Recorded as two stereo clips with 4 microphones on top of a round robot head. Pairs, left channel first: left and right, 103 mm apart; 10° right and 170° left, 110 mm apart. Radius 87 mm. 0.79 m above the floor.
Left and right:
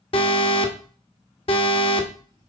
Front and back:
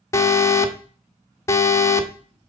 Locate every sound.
0.1 s an alarm: 55° left, 1.3 m